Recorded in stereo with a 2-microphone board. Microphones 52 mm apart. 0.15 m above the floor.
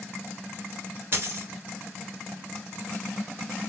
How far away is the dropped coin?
About 1.0 m.